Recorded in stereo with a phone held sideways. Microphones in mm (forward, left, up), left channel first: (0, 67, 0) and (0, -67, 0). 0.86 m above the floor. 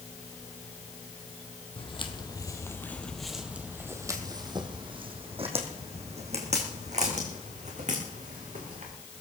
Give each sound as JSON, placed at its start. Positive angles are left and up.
{"t": 1.8, "sound": "footsteps", "side_deg": 45, "distance_m": 1.9}